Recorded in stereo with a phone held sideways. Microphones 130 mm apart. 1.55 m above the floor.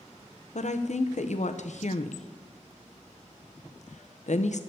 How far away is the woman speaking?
About 0.8 m.